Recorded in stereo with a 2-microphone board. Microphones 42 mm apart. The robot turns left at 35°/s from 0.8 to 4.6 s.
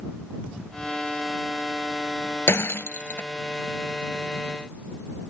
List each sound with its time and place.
2.5 s breaking glass: 80° left; by 3.3 s 55° left (ahead or behind)